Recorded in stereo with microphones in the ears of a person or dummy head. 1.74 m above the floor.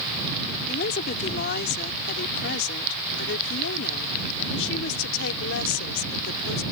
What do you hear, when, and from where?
0.7 s a woman speaking: 55° left (ahead or behind); by 6.6 s 85° left